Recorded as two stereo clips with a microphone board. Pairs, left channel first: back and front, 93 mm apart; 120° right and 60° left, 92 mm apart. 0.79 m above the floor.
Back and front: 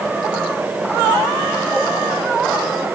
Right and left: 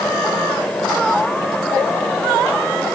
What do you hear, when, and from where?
Only background noise.